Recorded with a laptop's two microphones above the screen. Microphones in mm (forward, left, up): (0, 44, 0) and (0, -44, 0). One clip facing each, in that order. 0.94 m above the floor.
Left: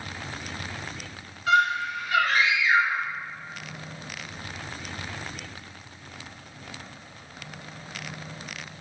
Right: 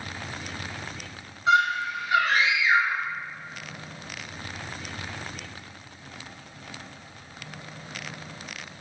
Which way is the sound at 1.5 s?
25° right (ahead or behind).